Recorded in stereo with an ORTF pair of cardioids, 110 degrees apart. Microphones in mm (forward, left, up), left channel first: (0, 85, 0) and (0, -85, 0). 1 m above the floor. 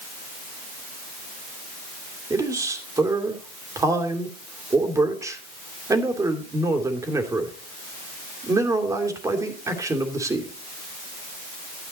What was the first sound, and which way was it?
A man speaking, 20° right.